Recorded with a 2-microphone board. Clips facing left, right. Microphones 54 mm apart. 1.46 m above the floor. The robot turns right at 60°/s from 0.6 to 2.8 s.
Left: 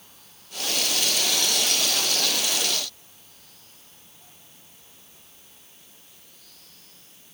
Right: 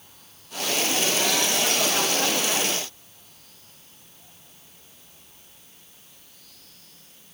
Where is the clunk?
No clunk in this recording.